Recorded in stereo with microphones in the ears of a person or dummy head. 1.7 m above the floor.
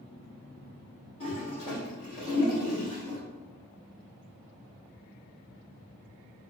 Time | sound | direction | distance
1.2 | a toilet flushing | 20° left (ahead or behind) | 1.1 m